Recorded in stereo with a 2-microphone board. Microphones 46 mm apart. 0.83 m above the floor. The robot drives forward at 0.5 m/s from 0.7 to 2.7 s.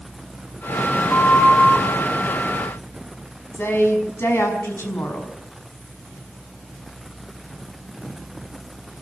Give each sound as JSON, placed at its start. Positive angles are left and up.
{"t": 1.1, "sound": "a flute", "side_deg": 20, "distance_m": 4.0}
{"t": 3.5, "sound": "a woman speaking", "side_deg": 55, "distance_m": 6.0}